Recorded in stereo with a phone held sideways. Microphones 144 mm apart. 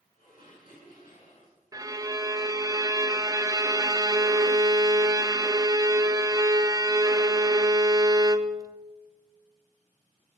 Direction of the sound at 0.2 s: 70° left (ahead or behind).